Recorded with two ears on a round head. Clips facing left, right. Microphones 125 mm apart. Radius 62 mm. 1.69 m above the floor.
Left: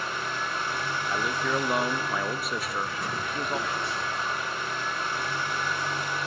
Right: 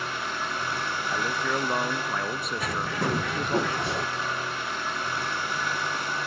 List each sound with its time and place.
0.0 s an engine running: 55° right (ahead or behind), 8 m
1.1 s a man speaking: 5° left (ahead or behind), 0.5 m
2.6 s a bird: 55° right (ahead or behind), 0.6 m